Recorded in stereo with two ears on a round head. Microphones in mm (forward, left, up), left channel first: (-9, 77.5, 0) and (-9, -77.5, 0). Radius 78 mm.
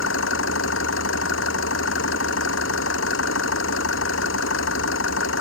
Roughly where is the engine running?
Left.